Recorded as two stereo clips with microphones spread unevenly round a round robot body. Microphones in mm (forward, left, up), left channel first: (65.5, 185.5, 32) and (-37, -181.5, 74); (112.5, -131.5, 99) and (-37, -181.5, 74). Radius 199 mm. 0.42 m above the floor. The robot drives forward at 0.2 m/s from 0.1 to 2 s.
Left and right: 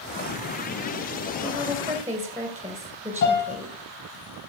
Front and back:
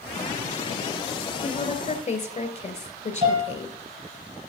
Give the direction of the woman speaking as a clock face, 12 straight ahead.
1 o'clock.